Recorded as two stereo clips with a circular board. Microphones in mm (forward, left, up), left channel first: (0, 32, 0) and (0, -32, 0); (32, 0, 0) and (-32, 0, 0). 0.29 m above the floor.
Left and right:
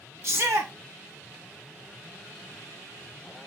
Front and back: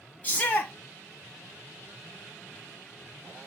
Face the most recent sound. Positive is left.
turn(degrees=-60)